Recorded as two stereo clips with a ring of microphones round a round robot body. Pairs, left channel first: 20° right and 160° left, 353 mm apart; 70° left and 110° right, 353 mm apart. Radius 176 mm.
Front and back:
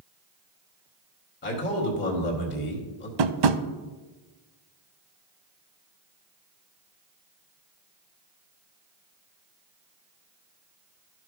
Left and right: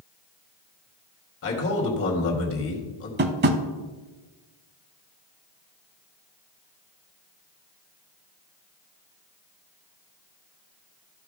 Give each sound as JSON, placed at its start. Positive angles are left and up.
{"t": 1.4, "sound": "a man speaking", "azimuth_deg": 25, "distance_m": 1.9}
{"t": 3.2, "sound": "tapping", "azimuth_deg": -175, "distance_m": 0.6}